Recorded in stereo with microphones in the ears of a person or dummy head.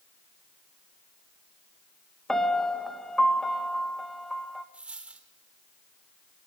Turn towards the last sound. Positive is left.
turn(degrees=-5)  # may be behind; listen again after turning